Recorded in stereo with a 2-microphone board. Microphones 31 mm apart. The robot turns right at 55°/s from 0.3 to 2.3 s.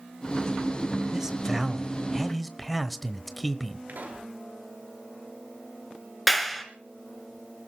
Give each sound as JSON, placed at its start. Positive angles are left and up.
{"t": 1.1, "sound": "a man speaking", "side_deg": -20, "distance_m": 1.1}
{"t": 3.9, "sound": "a pop", "side_deg": -65, "distance_m": 5.5}
{"t": 6.3, "sound": "a clap", "side_deg": 0, "distance_m": 2.5}